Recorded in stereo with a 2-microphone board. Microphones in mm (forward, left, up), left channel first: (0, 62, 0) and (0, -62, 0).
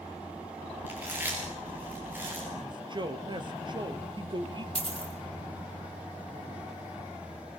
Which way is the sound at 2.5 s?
40° right (ahead or behind).